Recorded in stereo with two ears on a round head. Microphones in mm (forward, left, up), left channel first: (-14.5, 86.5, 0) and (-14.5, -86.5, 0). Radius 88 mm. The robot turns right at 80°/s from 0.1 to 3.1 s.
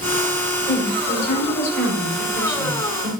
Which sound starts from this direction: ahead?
A woman speaking, at 0.7 s.